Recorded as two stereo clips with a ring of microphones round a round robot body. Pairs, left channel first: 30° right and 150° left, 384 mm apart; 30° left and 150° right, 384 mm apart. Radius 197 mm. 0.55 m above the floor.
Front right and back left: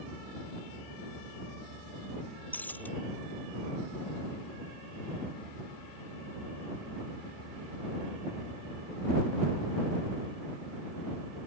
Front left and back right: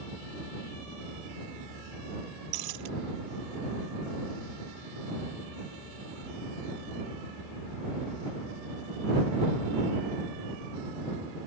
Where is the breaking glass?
115° right.